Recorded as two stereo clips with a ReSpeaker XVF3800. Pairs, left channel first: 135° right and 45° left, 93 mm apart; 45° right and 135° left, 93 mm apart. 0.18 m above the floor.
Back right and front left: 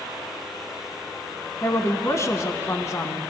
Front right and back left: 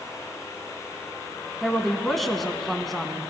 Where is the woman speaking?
130° right, 1.1 m.